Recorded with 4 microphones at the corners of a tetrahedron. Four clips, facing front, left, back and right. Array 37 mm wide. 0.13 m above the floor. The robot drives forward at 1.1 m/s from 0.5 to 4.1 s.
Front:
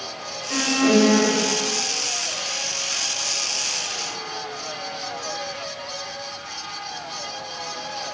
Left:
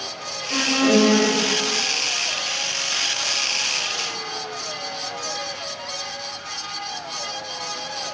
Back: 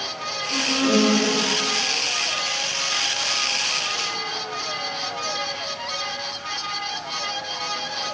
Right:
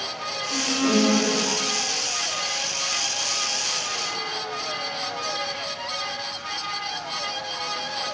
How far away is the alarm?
About 4.5 m.